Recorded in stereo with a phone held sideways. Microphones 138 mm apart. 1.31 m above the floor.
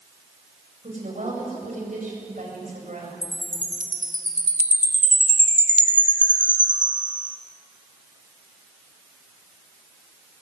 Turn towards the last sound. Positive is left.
turn(degrees=-65)  # may be behind; listen again after turning